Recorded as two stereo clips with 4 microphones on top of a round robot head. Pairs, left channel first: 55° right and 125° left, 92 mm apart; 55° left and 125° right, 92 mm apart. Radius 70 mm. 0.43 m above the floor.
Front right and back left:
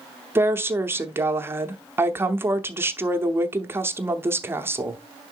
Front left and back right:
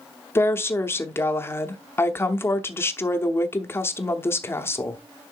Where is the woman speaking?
90° left, 0.9 m.